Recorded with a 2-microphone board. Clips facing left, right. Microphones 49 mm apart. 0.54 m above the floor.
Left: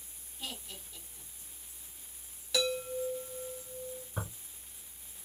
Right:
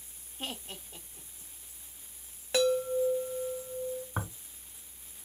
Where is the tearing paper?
55° right (ahead or behind), 3 m.